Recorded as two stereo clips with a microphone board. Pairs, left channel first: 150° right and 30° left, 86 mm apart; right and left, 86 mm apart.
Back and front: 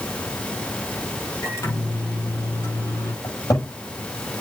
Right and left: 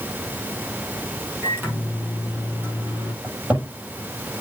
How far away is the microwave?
About 4.5 m.